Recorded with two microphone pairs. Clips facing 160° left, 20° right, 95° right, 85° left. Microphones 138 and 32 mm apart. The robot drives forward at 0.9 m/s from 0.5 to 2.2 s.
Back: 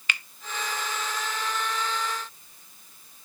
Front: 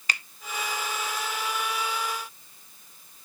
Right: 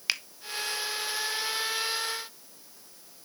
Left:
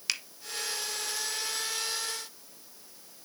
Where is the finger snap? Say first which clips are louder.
Even, right 3 dB; 40° right, 0.6 m.